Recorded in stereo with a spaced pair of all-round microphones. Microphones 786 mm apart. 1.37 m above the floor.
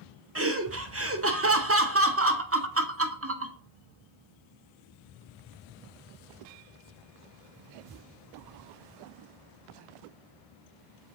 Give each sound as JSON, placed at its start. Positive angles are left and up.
{"t": 0.3, "sound": "laughter", "side_deg": -20, "distance_m": 0.6}